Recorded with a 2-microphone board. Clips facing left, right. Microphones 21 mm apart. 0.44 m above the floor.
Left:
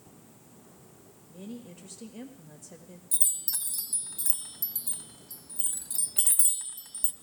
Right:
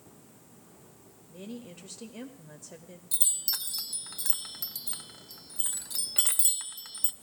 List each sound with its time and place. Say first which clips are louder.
1.3 s a woman speaking: even; 20° right (ahead or behind), 1.3 m
3.1 s a chime: right 2 dB; 40° right (ahead or behind), 0.7 m